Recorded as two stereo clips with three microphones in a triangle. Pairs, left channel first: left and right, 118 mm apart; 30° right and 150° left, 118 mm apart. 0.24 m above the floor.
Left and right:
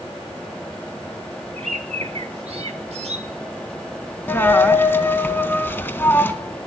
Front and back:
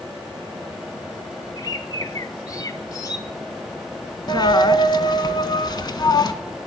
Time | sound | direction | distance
1.6 | a bird | 85° right | 0.7 m
4.3 | a dropped coin | 20° left | 0.7 m